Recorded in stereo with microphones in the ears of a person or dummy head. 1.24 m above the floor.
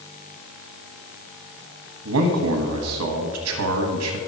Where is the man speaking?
85° right, 1.4 m.